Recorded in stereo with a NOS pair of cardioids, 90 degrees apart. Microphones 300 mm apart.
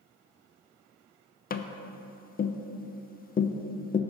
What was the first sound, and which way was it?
Tapping, 30° left.